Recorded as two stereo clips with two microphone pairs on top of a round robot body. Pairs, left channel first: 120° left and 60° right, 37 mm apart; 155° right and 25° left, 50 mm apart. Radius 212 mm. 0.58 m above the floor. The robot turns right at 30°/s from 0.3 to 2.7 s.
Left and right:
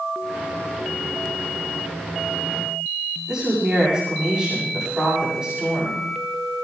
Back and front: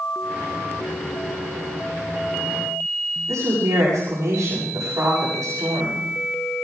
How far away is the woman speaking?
About 7 m.